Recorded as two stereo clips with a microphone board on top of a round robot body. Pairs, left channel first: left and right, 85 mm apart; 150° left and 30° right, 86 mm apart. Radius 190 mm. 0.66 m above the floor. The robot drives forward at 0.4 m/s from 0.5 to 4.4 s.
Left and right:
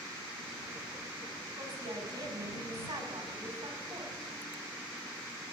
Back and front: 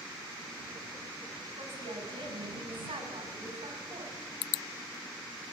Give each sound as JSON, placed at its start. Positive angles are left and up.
{"t": 1.6, "sound": "a woman speaking", "azimuth_deg": -45, "distance_m": 8.0}